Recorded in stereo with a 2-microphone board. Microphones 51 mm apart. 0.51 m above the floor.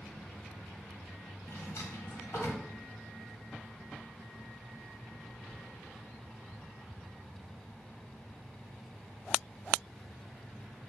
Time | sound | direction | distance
1.5 | a drawer | 70° left (ahead or behind) | 1.4 m